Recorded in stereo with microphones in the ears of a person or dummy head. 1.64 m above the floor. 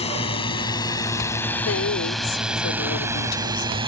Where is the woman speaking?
80° left.